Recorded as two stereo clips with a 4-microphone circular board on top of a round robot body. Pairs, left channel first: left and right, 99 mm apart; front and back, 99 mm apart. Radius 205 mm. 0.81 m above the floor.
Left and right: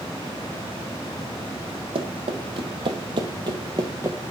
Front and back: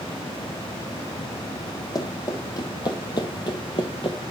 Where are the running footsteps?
55° right, 1.7 m; by 4.2 s 20° right, 0.8 m.